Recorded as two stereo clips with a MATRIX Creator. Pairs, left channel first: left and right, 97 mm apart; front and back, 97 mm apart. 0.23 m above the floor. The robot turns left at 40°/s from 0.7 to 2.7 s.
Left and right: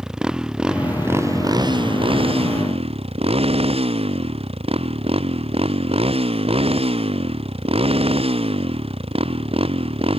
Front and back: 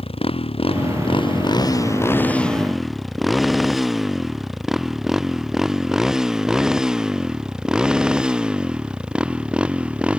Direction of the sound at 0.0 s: 5° right.